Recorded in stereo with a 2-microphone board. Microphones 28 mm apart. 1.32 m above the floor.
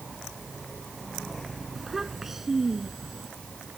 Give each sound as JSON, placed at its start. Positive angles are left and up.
{"t": 1.8, "sound": "a child speaking", "side_deg": -10}